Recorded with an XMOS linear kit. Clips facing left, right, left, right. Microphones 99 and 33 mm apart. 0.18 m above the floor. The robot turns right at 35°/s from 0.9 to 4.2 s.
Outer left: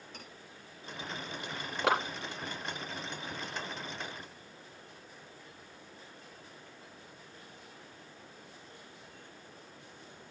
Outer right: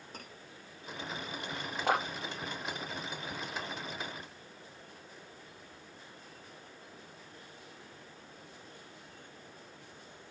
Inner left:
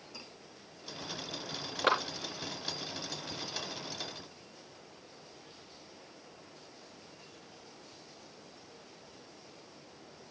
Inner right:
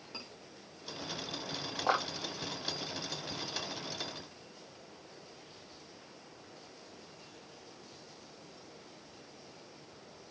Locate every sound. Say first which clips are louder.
0.1 s cutlery clinking: outer right 3 dB, inner right 3 dB; 40° right (ahead or behind), 7 m
1.8 s a clap: outer left 1 dB, inner left 2 dB; 75° left (ahead or behind), 4 m